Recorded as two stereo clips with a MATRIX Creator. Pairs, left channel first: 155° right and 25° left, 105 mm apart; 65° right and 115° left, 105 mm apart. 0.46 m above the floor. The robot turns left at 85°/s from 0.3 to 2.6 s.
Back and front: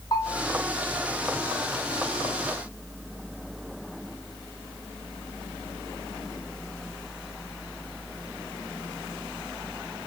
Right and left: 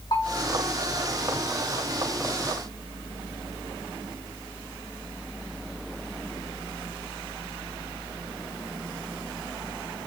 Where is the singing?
I don't hear singing.